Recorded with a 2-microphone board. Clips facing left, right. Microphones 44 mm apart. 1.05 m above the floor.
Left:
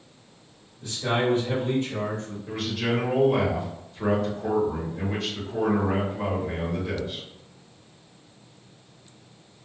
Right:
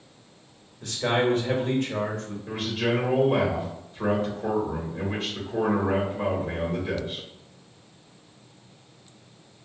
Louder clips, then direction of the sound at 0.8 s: Right 1 dB; 70° right (ahead or behind).